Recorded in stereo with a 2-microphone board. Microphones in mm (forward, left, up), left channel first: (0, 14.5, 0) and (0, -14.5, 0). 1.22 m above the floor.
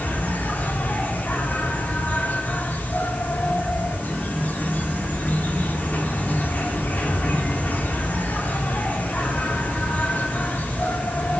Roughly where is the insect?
Left.